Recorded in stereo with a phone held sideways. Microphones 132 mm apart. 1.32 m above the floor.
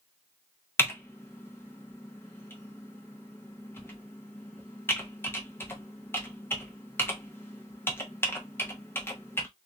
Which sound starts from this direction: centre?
Typing on a keyboard, at 0.8 s.